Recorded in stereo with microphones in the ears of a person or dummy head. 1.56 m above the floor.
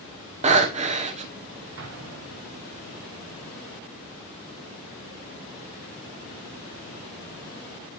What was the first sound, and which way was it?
Breathing, 30° right (ahead or behind).